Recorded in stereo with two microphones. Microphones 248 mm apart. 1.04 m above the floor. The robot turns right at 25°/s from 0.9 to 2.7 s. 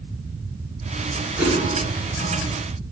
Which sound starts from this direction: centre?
A whoosh, at 1.4 s.